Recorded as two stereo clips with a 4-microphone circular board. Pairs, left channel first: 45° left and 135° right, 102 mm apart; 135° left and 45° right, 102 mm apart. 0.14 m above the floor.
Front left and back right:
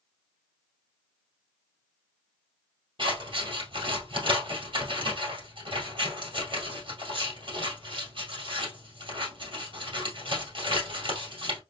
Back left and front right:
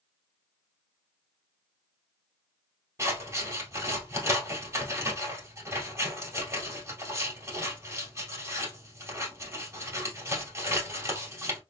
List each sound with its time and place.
3.0 s scissors: 105° right, 2.5 m